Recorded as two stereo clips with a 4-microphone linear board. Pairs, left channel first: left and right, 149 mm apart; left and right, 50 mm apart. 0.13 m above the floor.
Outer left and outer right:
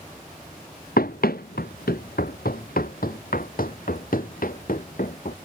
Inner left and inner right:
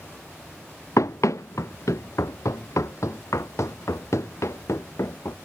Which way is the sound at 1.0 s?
75° left (ahead or behind).